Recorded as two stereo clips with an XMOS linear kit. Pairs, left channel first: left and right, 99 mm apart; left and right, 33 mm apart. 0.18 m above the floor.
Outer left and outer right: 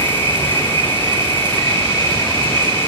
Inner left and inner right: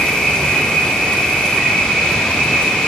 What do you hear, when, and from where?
0.0 s an insect: 25° left (ahead or behind), 3 m